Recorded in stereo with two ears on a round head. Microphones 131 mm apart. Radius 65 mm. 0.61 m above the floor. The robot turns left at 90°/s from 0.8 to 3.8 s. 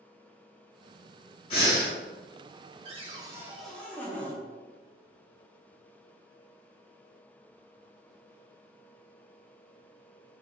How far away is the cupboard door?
About 0.7 m.